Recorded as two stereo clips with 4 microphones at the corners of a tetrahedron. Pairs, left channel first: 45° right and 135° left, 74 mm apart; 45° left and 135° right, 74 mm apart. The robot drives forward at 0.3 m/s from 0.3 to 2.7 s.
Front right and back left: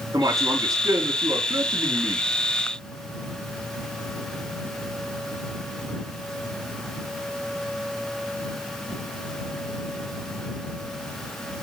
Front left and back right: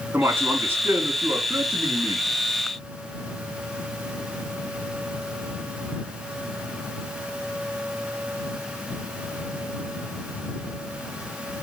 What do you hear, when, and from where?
0.1 s a man speaking: 165° left, 2.5 m; by 2.2 s 170° left, 3.5 m